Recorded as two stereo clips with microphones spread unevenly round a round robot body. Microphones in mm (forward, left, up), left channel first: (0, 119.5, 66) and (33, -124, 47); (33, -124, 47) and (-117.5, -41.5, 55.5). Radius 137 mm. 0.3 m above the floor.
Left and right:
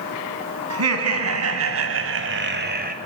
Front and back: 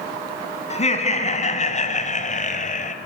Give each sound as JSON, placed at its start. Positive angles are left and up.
{"t": 0.7, "sound": "laughter", "azimuth_deg": -75, "distance_m": 3.5}